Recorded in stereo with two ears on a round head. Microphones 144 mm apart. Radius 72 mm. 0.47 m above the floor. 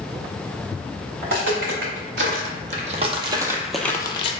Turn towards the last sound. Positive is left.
turn(degrees=40)  # may be behind; listen again after turning